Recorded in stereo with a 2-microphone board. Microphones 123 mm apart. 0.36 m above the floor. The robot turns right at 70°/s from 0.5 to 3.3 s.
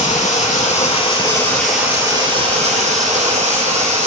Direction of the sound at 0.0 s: 95° left.